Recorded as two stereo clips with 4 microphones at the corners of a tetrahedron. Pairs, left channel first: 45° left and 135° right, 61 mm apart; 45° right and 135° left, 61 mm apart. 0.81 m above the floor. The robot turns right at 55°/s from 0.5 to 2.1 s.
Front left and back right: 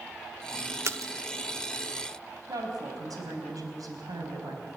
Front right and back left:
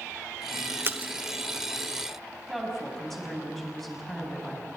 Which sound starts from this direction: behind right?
A woman speaking, at 2.5 s.